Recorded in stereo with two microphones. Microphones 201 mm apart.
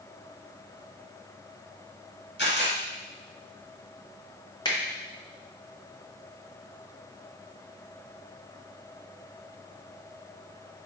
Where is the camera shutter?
75° left (ahead or behind), 2 m.